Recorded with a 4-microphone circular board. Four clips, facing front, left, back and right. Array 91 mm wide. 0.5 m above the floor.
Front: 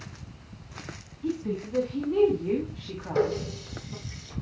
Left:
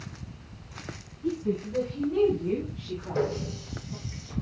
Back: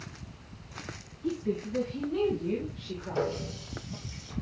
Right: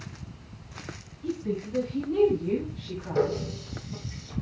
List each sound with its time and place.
1.2 s a woman speaking: 10° left, 4 m; by 3.5 s straight ahead, 3 m
3.1 s a running tap: straight ahead, 5 m